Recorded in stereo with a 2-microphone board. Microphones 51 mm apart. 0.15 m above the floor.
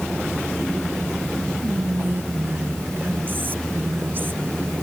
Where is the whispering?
45° right (ahead or behind).